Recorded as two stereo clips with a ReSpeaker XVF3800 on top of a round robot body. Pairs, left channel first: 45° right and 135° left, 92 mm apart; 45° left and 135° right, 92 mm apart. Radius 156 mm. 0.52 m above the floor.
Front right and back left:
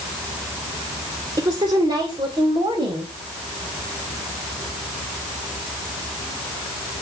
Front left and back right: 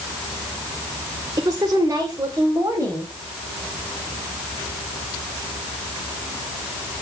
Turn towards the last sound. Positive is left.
turn(degrees=160)